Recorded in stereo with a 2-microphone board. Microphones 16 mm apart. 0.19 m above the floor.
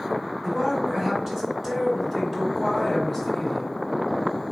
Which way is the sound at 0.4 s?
40° right (ahead or behind).